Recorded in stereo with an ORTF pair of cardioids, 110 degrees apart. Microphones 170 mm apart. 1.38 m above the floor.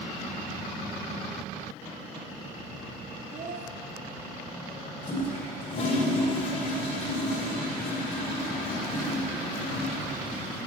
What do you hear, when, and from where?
3.3 s a child speaking: 45° right, 2.5 m
5.0 s a toilet flushing: 35° left, 4 m